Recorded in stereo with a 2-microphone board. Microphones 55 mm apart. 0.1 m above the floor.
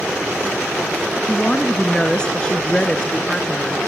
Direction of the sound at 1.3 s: 20° left (ahead or behind).